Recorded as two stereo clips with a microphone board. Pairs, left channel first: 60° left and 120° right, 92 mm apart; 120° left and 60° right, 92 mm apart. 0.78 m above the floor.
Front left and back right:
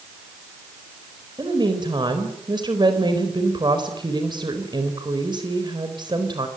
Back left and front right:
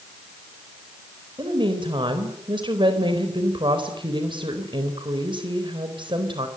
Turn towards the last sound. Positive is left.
turn(degrees=-85)